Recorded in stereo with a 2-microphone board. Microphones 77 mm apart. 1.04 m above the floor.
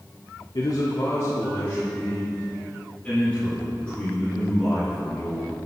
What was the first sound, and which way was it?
A man speaking, 65° left (ahead or behind).